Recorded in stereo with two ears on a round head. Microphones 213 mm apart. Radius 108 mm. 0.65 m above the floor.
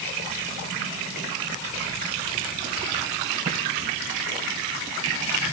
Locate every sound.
Only background noise.